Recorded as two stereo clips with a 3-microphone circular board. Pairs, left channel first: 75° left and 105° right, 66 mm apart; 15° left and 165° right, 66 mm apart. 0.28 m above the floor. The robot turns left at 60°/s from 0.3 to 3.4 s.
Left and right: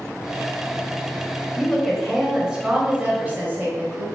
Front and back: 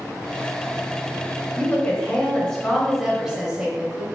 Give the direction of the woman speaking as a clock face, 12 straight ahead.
12 o'clock.